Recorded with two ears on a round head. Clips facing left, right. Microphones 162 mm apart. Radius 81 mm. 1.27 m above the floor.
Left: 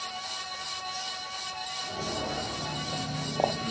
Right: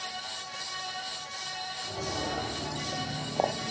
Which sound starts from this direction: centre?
Footsteps, at 1.8 s.